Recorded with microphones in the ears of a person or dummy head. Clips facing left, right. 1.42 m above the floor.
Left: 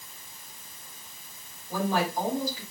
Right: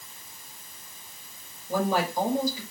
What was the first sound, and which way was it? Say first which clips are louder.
A woman speaking: right 2 dB; 75° right (ahead or behind).